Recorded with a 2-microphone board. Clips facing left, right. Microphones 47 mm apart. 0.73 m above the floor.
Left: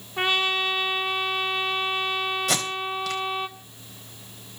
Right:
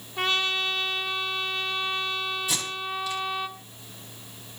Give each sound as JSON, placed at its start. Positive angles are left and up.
{"t": 0.2, "sound": "a trumpet", "side_deg": 25, "distance_m": 2.0}
{"t": 2.5, "sound": "tape being pulled", "side_deg": 75, "distance_m": 3.5}